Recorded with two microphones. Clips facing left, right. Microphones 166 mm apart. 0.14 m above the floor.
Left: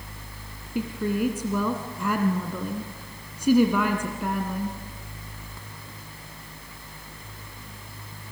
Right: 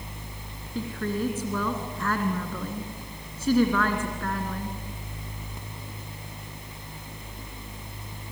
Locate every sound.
0.8 s a woman speaking: 15° left (ahead or behind), 1.6 m